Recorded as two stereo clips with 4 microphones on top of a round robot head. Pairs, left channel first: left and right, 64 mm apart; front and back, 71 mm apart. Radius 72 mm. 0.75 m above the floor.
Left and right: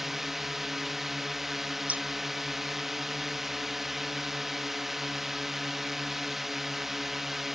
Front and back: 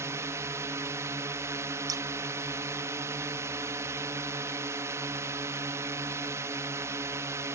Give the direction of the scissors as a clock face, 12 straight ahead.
5 o'clock.